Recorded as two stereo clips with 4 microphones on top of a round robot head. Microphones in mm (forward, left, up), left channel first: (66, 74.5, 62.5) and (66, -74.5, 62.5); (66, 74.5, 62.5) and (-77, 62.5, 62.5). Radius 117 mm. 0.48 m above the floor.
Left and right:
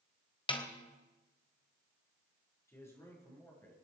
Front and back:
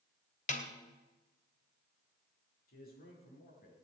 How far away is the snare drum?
About 2.5 m.